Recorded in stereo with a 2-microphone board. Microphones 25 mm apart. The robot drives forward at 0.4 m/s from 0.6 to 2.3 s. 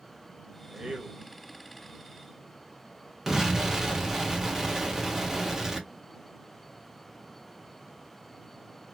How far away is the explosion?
About 1.3 m.